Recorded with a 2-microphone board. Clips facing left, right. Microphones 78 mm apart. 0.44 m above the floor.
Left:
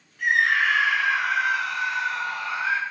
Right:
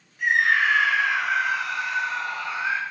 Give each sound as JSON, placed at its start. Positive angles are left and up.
{"t": 0.2, "sound": "a scream", "side_deg": -15, "distance_m": 3.0}